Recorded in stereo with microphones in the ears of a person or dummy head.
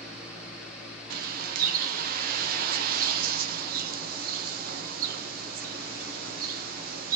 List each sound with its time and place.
0.0 s a fan: centre (ahead or behind), 1.9 m
1.1 s a bird: 55° right (ahead or behind), 0.6 m